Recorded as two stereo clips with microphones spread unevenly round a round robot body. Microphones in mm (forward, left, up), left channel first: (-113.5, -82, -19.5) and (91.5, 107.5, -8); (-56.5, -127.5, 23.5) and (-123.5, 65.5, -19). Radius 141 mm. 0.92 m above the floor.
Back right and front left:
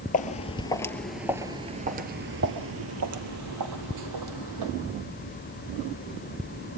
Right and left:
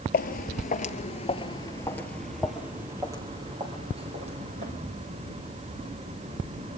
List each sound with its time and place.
0.1 s footsteps: 80° right, 1.4 m; by 4.7 s 40° left, 2.5 m